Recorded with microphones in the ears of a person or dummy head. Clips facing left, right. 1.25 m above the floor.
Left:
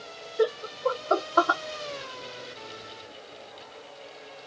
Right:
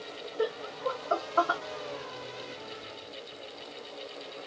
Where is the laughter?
60° left (ahead or behind), 0.5 m.